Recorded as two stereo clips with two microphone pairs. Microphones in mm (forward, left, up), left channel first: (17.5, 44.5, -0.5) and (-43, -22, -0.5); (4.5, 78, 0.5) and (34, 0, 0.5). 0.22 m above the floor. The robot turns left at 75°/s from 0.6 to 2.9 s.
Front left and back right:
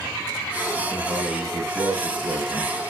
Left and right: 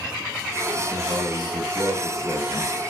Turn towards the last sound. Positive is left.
turn(degrees=135)